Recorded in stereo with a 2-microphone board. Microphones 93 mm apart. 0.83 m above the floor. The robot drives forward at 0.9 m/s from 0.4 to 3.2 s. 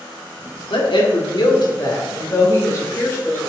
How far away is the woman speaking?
About 1.7 m.